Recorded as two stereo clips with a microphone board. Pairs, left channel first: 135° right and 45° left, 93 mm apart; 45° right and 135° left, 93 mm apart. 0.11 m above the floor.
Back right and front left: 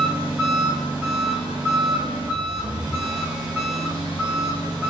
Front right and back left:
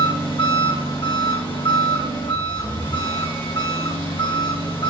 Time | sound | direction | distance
0.0 | an engine running | 25° right | 3.5 m